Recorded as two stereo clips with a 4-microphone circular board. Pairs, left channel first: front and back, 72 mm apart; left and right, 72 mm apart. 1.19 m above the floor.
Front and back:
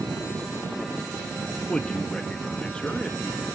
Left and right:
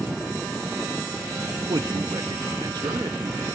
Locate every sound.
1.7 s a man speaking: 75° right, 1.1 m